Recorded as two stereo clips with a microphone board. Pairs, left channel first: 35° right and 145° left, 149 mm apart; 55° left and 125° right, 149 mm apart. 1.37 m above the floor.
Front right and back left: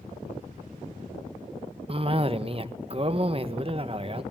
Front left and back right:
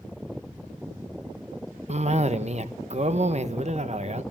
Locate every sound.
1.9 s a cough: 165° right, 1.3 m